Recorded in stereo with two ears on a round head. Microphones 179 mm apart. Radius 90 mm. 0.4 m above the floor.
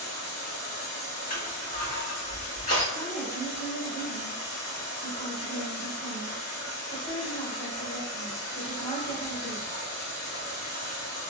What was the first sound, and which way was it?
Running water, 80° left.